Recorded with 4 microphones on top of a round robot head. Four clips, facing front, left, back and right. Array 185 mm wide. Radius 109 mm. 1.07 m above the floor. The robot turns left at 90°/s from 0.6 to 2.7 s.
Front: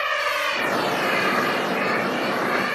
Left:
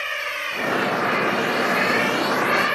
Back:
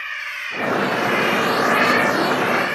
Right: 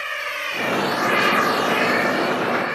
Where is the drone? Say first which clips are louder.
Even, front 8 dB; 10° left; by 2.8 s 80° left.